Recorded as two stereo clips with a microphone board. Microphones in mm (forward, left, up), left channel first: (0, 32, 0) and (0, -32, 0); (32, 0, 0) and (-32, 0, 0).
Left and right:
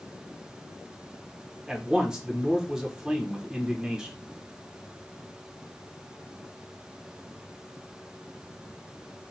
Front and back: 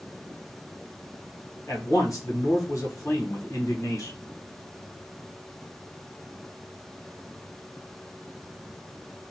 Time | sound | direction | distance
1.7 | a man speaking | 15° right | 0.9 m